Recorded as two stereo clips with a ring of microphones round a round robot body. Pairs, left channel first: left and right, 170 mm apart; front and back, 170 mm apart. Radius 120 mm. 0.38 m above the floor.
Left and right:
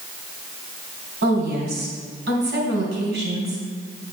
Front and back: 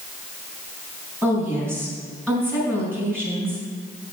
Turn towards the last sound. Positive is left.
turn(degrees=-85)